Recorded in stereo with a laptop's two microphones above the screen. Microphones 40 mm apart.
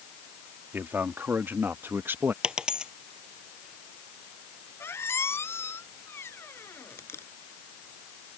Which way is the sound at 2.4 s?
20° right (ahead or behind).